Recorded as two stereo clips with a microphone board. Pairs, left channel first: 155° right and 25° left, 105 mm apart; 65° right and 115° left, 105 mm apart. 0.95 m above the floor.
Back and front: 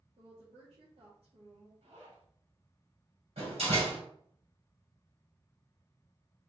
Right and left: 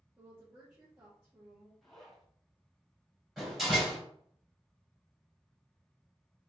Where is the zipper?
20° left, 2.5 m.